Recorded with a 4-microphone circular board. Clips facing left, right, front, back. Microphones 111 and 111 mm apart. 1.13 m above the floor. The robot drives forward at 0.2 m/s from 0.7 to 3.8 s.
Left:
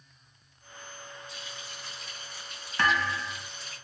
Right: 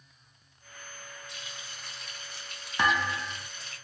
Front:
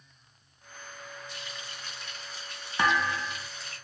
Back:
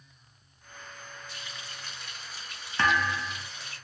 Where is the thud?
50° right, 0.6 m; by 3.5 s 100° right, 0.5 m.